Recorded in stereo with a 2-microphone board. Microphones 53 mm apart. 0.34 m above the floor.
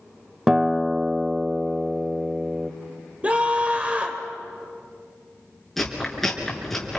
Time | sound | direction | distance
0.5 | a guitar | 10° right (ahead or behind) | 0.7 m
3.2 | a scream | 25° right (ahead or behind) | 1.5 m
5.8 | chewing | 5° left (ahead or behind) | 4.5 m